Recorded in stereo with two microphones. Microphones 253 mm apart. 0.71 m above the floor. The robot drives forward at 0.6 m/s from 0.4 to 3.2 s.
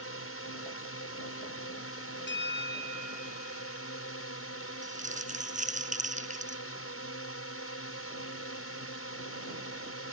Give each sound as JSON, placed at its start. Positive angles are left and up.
{"t": 0.0, "sound": "a drone", "side_deg": 60}
{"t": 2.3, "sound": "a bell", "side_deg": 45}
{"t": 4.8, "sound": "crumpling", "side_deg": -30}